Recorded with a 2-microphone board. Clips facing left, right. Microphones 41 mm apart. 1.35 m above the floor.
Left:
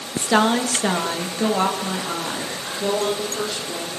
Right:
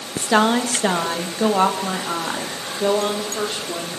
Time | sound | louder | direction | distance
0.2 | a woman speaking | right 1 dB | 5° right (ahead or behind) | 1.5 m